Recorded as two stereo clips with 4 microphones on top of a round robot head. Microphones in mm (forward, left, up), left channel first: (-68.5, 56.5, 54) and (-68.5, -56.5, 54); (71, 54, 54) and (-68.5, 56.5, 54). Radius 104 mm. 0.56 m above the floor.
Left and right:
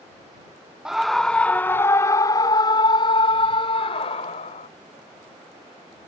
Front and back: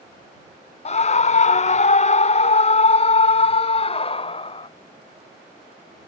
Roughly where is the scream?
Ahead.